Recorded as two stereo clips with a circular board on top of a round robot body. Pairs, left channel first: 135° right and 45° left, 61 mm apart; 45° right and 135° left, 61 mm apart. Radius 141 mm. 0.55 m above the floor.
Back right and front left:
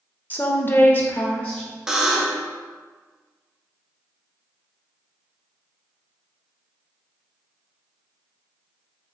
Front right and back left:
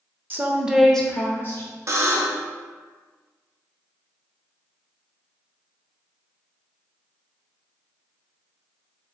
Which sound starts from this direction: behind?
A woman speaking, at 0.3 s.